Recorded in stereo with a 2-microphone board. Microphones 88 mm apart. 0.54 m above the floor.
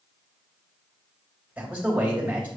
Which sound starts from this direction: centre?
A man speaking, at 1.6 s.